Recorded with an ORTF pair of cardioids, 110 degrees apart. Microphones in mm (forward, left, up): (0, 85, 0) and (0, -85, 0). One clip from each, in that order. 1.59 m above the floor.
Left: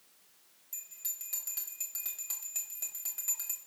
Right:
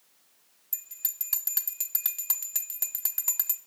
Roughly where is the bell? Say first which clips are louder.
Right 3 dB; ahead right.